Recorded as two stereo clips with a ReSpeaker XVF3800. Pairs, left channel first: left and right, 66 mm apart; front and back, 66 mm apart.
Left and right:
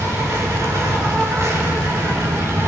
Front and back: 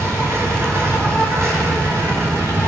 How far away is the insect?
About 6 m.